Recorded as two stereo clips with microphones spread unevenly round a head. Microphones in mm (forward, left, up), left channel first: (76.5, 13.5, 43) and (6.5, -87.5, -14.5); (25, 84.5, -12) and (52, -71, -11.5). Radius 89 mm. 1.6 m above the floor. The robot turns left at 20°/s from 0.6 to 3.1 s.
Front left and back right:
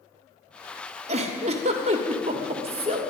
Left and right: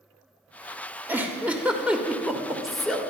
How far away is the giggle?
About 1.3 m.